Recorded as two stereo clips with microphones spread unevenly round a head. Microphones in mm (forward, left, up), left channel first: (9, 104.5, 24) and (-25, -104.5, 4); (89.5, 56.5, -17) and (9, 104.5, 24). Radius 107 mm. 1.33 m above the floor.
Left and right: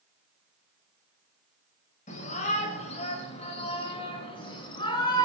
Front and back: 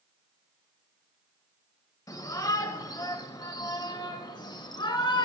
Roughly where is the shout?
Ahead left.